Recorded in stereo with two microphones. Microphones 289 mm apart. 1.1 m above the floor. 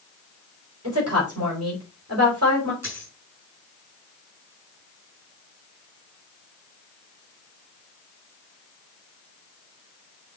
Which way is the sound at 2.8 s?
65° right (ahead or behind).